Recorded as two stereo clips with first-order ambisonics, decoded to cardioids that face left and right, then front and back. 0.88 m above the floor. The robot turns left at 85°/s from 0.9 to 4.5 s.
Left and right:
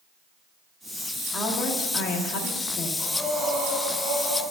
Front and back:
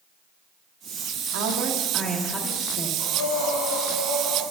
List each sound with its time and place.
1.3 s a woman speaking: 160° left, 1.6 m; by 2.9 s 30° left, 1.6 m
3.0 s breathing: 20° left, 1.7 m; by 4.4 s 100° right, 1.7 m